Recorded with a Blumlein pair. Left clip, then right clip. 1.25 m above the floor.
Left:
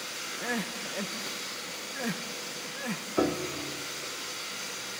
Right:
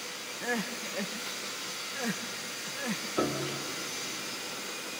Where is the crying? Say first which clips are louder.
Right 1 dB; straight ahead, 0.8 m.